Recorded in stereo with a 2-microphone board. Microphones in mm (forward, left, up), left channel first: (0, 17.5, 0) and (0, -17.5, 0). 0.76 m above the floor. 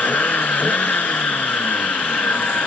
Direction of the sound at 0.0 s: 65° left (ahead or behind).